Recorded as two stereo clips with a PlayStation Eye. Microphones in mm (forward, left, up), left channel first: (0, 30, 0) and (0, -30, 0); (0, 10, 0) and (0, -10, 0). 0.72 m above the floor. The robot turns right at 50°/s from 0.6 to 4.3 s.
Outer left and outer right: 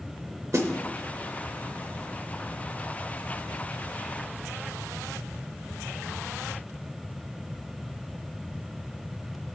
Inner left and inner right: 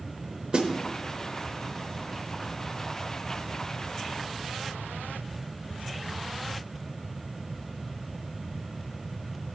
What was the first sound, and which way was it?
A snare drum, 55° right (ahead or behind).